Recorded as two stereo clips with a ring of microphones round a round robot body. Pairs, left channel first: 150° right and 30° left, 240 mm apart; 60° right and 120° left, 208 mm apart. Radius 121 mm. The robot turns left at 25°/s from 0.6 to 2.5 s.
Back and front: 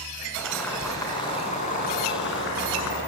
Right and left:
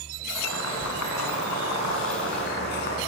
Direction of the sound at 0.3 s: 65° right.